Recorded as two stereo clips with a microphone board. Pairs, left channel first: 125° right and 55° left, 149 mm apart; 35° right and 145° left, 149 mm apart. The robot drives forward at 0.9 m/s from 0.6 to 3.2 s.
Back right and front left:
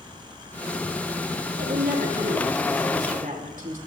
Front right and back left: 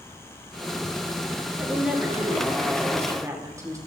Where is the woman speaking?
65° left, 6.5 m; by 3.8 s 75° left, 5.5 m.